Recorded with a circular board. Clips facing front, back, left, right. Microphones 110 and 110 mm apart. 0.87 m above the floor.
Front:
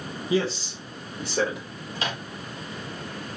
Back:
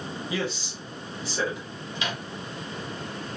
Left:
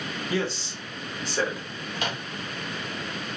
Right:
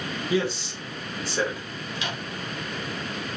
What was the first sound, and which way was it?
A man speaking, 30° right.